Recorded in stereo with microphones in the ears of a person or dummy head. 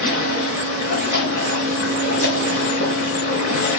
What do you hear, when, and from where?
0.0 s running water: 45° left (ahead or behind), 4.5 m